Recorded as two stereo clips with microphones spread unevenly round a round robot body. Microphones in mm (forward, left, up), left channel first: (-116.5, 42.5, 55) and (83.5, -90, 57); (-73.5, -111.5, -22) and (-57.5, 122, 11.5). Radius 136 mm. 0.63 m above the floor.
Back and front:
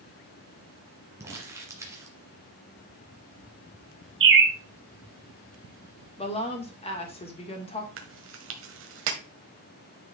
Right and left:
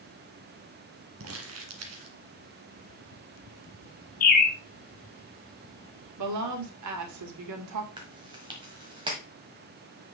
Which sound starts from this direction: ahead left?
Crumpling, at 1.2 s.